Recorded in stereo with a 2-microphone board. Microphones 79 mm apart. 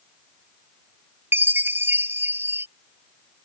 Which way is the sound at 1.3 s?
30° right (ahead or behind).